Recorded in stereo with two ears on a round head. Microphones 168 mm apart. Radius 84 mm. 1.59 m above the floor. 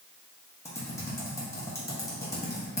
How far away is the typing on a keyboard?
About 1.2 m.